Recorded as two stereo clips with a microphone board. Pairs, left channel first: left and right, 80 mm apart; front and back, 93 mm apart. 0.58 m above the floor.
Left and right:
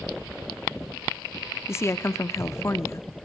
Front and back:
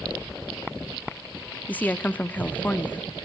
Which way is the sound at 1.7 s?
60° left.